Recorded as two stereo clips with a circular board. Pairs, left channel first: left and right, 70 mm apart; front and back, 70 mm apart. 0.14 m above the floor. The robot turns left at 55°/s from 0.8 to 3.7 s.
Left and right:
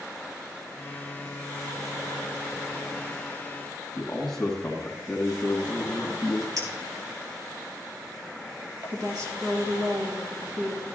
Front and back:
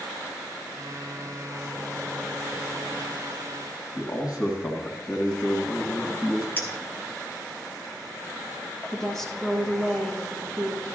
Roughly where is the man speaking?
Ahead.